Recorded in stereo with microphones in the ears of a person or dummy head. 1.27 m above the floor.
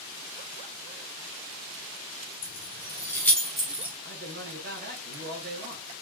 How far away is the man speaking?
About 2.5 m.